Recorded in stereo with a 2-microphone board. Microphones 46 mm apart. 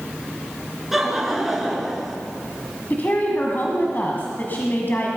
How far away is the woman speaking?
About 1.9 m.